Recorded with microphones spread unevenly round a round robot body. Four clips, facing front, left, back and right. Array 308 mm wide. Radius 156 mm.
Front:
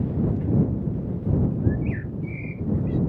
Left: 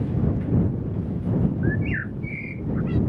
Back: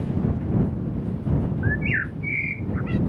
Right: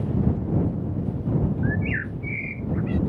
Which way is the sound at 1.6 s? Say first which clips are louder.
Left 1 dB, even; 165° left.